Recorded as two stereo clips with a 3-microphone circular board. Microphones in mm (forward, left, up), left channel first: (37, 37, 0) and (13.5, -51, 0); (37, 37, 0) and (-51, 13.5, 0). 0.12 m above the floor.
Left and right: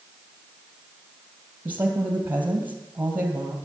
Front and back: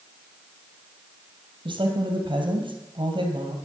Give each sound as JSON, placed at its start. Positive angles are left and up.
{"t": 1.6, "sound": "a woman speaking", "azimuth_deg": -175, "distance_m": 2.5}